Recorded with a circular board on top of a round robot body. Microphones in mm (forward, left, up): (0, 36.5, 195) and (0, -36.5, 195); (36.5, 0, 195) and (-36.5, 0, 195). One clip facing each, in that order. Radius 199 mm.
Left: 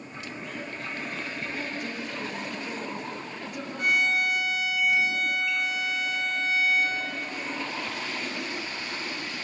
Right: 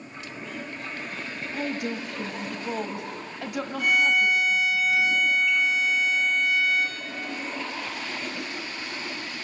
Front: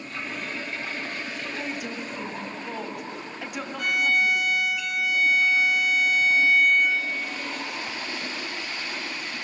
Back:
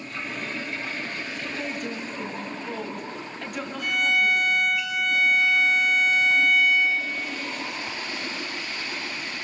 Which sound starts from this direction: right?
A woman speaking, at 1.5 s.